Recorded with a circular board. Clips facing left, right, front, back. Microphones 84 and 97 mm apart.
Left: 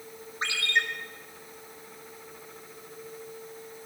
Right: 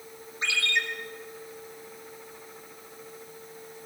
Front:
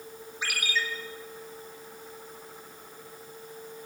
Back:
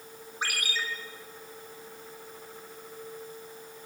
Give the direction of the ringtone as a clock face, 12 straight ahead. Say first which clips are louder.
Left 1 dB, front 2 dB; 7 o'clock.